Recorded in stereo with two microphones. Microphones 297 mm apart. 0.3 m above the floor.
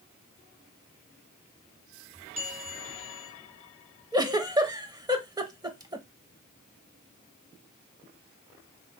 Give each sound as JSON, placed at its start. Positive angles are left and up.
{"t": 2.4, "sound": "a bell", "side_deg": 25, "distance_m": 3.5}
{"t": 4.1, "sound": "a giggle", "side_deg": -15, "distance_m": 0.7}